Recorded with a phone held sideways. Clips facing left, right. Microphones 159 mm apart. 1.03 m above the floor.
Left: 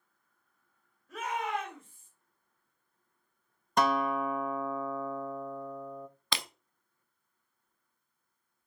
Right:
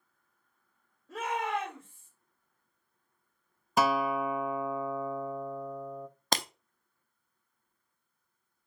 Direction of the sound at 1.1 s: 30° right (ahead or behind).